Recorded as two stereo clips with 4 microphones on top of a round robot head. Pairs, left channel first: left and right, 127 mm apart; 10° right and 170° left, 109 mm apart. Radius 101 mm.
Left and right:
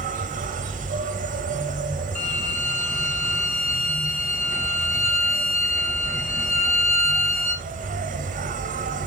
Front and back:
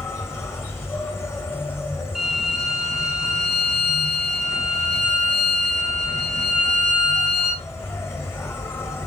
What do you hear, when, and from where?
0.0 s an insect: 80° right, 1.6 m
2.1 s a violin: 85° left, 4.5 m